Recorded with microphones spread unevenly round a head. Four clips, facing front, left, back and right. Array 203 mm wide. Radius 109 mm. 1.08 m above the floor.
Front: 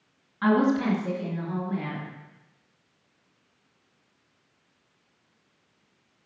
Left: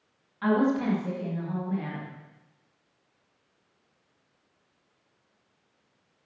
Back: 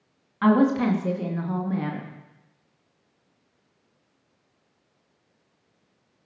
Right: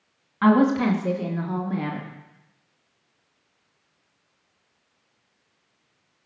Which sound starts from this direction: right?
A woman speaking, at 0.4 s.